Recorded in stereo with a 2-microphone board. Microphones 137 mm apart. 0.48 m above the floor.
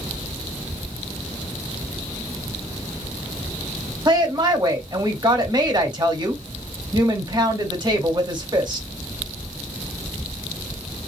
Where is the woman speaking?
30° right (ahead or behind), 1.6 m.